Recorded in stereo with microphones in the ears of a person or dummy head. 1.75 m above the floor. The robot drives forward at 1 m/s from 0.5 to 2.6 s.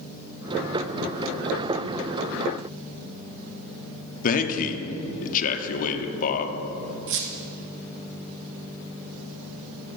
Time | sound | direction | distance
4.2 | a man speaking | 40° left (ahead or behind) | 1.0 m
7.1 | a squeak | 60° right (ahead or behind) | 1.2 m